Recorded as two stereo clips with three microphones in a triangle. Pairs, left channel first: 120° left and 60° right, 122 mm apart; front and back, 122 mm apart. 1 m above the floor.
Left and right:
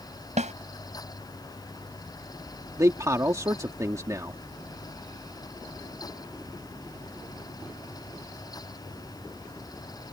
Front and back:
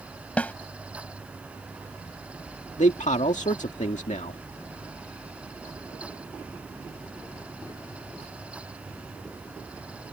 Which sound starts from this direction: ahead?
A man speaking, at 2.8 s.